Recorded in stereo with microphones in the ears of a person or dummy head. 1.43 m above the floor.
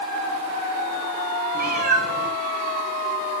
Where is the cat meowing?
40° right (ahead or behind), 6 m.